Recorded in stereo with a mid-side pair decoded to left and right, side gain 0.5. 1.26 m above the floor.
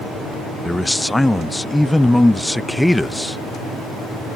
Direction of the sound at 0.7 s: 10° left.